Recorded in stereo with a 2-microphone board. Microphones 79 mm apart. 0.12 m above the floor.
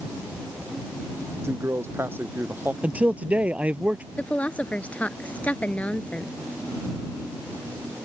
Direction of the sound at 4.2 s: 20° left (ahead or behind).